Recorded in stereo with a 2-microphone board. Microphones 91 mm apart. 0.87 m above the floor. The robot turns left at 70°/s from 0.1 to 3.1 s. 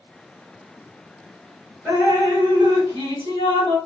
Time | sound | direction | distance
1.9 | dripping | 15° right | 1.8 m